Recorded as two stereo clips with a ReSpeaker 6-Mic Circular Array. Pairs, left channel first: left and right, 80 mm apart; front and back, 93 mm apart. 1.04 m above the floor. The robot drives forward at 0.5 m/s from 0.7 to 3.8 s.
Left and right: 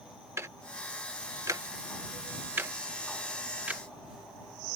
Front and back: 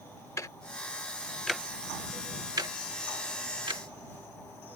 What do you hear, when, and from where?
0.4 s ticking: 45° right; by 3.8 s 160° right